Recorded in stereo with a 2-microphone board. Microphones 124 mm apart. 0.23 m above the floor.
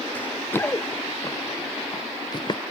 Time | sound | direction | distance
0.1 | running footsteps | 15° left (ahead or behind) | ?